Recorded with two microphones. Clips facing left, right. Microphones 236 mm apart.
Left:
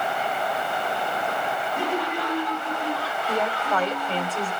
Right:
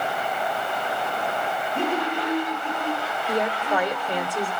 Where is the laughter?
25° right (ahead or behind), 7 m; by 4.3 s 10° right (ahead or behind), 5.5 m.